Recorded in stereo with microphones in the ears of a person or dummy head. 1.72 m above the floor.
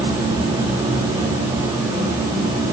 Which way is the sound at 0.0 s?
30° right (ahead or behind).